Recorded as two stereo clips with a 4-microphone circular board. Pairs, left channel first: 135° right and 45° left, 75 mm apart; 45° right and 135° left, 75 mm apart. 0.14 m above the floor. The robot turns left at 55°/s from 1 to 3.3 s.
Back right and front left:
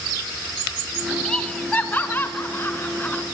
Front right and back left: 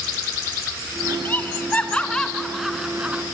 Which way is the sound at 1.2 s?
60° right.